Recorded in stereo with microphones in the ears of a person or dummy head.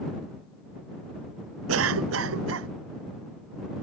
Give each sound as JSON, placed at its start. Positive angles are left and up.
{"t": 1.7, "sound": "a cough", "side_deg": -80}